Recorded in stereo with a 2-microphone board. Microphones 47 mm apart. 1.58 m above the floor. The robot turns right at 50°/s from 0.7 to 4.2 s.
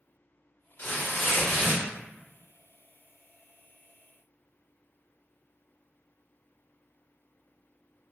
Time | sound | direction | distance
0.8 | tearing paper | 75° left | 1.9 m